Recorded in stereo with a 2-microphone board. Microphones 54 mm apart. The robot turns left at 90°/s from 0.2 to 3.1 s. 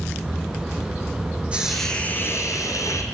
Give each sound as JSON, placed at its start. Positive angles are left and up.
{"t": 1.5, "sound": "a hiss", "azimuth_deg": -160, "distance_m": 3.0}